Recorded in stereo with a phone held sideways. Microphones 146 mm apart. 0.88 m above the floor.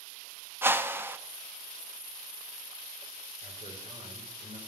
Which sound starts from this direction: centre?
A whoosh, at 0.6 s.